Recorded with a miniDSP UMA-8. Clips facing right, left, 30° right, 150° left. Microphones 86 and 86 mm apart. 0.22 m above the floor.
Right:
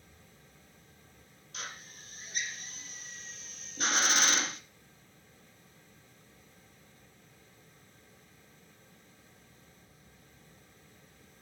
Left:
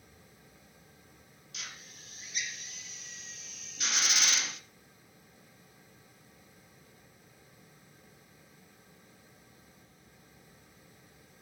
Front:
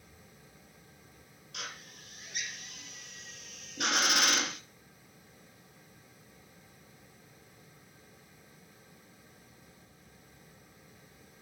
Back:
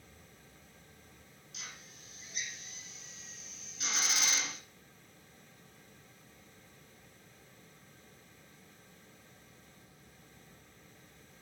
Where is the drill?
45° right, 1.7 m.